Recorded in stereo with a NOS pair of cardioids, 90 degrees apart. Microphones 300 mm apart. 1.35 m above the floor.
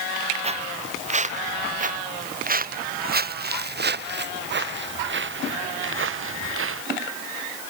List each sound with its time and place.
0.4 s footsteps: 20° right; by 6.8 s 45° right